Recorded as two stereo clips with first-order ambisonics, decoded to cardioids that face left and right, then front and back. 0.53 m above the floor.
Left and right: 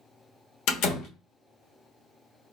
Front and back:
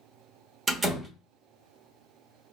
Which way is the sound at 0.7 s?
110° left.